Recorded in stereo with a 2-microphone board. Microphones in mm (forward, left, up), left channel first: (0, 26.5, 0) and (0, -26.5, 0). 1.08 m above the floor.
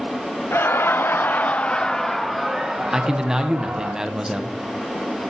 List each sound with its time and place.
0.5 s laughter: 45° left (ahead or behind), 0.7 m; by 3.9 s 15° right (ahead or behind), 1.4 m
2.9 s a man speaking: 10° right (ahead or behind), 0.8 m